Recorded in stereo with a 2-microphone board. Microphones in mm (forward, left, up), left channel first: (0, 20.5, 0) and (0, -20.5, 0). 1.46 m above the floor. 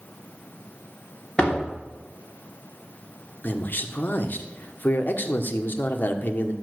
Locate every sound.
1.4 s a door slam: 20° left (ahead or behind), 3 m
3.4 s a man speaking: 55° left (ahead or behind), 1.4 m